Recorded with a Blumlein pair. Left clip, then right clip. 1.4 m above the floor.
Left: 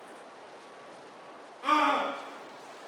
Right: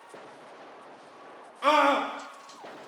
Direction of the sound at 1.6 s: 55° right.